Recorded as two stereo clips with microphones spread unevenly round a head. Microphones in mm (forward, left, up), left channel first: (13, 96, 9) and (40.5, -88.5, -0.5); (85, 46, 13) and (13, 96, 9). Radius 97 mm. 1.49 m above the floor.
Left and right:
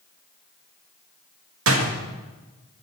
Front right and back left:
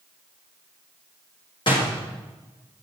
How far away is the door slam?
About 1.4 m.